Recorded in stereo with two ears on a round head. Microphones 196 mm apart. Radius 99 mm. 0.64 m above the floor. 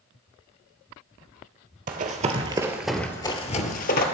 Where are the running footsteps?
40° right (ahead or behind), 0.9 m; by 4.0 s 45° left (ahead or behind), 0.9 m.